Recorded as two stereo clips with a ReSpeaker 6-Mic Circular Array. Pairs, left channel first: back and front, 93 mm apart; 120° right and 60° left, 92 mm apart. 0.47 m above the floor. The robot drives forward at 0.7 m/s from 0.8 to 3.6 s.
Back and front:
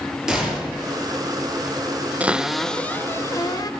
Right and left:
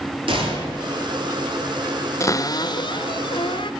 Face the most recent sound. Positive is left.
turn(degrees=-135)